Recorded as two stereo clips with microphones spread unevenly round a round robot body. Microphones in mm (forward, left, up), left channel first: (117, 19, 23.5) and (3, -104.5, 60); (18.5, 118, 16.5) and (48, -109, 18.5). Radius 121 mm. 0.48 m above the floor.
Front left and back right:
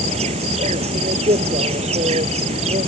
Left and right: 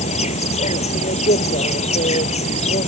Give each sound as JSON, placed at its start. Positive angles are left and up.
{"t": 0.0, "sound": "an insect", "azimuth_deg": 165}